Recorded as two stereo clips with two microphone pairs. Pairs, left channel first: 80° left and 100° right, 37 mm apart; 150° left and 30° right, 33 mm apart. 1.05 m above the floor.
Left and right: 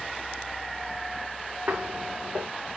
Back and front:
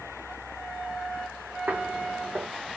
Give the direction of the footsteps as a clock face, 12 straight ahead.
2 o'clock.